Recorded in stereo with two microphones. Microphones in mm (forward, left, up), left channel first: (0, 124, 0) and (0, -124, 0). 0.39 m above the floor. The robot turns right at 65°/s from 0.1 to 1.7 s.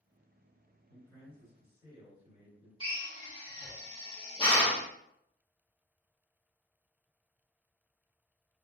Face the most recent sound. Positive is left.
turn(degrees=20)  # may be behind; listen again after turning